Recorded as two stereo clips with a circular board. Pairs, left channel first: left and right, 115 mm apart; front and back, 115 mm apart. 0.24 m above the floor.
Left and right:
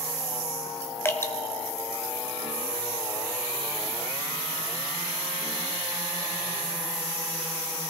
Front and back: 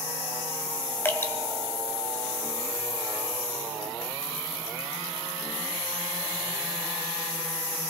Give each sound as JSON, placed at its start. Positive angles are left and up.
{"t": 1.1, "sound": "dripping", "azimuth_deg": 45, "distance_m": 1.3}